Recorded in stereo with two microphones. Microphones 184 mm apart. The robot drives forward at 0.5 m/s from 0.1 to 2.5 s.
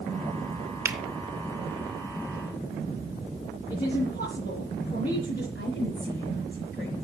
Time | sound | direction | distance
0.8 | a finger snap | 15° right (ahead or behind) | 1.8 m
3.7 | a woman speaking | 40° left (ahead or behind) | 5 m
5.5 | a woman speaking | 70° left (ahead or behind) | 5 m